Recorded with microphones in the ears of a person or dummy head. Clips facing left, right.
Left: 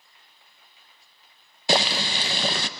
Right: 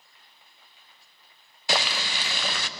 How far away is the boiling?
About 0.6 m.